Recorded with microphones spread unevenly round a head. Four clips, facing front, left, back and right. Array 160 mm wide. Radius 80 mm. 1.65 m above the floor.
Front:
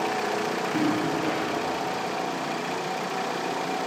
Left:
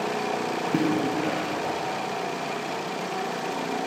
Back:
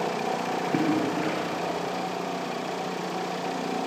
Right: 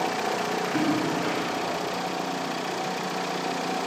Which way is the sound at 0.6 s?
120° left.